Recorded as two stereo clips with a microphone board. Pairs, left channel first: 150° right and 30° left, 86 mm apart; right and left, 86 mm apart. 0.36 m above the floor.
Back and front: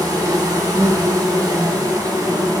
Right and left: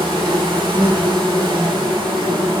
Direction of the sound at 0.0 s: 80° left.